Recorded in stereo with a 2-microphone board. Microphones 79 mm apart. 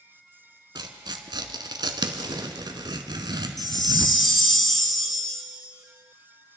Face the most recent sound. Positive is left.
turn(degrees=5)  # may be behind; listen again after turning